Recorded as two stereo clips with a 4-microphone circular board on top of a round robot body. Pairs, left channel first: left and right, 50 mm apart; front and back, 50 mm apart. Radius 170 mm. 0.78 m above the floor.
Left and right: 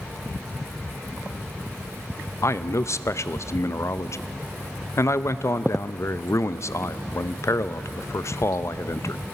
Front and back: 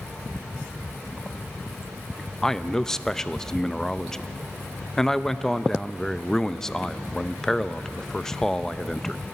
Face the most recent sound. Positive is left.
turn(degrees=80)